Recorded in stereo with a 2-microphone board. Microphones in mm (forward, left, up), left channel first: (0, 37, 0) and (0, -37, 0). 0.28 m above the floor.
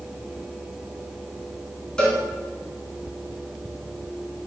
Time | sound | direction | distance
2.0 | a cowbell | 15° left (ahead or behind) | 1.1 m